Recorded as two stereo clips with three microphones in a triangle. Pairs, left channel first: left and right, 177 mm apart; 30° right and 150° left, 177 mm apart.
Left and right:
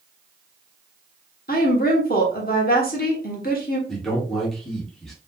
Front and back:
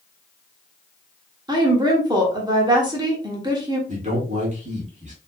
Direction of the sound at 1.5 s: 90° left.